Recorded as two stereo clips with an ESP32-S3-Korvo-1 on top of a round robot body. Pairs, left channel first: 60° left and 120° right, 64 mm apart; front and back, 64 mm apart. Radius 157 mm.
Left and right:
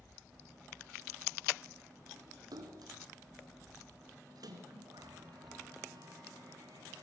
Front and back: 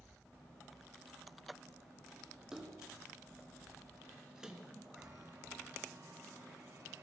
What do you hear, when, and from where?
2.5 s a splash: 100° right, 3.5 m
5.0 s a chime: 140° right, 9 m